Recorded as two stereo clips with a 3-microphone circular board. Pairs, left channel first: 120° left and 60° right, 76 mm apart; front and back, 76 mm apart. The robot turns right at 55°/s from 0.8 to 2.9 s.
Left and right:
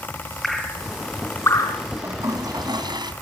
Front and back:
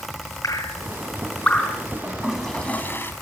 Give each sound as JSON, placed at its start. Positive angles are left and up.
{"t": 0.4, "sound": "dripping", "azimuth_deg": 35, "distance_m": 4.0}
{"t": 2.0, "sound": "a toilet flushing", "azimuth_deg": -110, "distance_m": 3.0}